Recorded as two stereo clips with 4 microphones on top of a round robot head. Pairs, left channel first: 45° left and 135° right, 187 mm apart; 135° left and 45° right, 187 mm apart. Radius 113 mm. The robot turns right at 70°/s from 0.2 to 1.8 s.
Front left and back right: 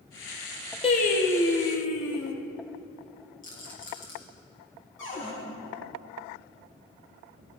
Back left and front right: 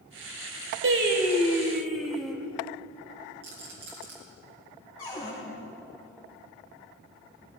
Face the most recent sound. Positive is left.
turn(degrees=75)